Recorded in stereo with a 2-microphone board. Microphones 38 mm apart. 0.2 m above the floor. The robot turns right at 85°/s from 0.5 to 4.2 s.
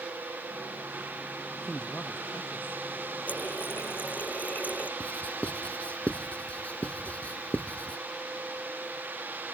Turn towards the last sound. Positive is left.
turn(degrees=40)  # may be behind; listen again after turning